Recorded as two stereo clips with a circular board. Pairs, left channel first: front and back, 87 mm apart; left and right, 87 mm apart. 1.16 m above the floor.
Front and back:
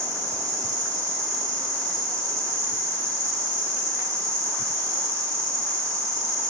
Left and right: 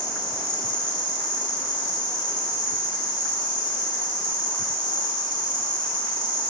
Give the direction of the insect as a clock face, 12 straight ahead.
8 o'clock.